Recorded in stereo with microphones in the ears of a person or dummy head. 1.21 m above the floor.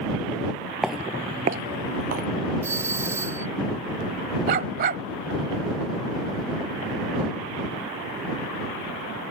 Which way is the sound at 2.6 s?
15° right (ahead or behind).